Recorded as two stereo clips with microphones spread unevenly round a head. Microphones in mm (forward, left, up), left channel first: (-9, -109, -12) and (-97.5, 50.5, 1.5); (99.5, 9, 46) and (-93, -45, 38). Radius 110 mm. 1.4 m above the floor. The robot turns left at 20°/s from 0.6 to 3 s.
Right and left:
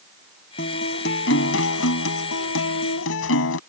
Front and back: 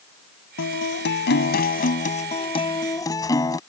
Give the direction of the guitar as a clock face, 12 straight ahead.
12 o'clock.